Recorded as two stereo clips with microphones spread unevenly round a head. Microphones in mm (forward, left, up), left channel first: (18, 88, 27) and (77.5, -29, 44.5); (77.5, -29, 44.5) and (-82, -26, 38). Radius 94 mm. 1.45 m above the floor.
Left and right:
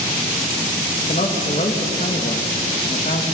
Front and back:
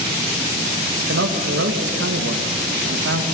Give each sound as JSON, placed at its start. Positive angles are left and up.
{"t": 1.1, "sound": "a man speaking", "azimuth_deg": 170, "distance_m": 2.0}